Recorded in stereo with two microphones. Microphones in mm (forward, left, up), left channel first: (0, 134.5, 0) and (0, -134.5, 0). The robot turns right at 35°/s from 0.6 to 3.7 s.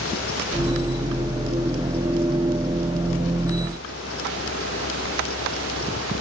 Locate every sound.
Only background noise.